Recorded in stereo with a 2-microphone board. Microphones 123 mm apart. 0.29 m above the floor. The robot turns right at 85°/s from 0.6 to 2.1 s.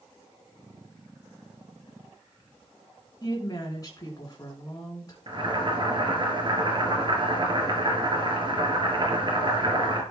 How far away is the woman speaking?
About 3.5 m.